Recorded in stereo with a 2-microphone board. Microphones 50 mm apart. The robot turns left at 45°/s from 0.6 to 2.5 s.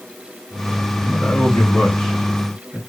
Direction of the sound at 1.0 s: 45° left (ahead or behind).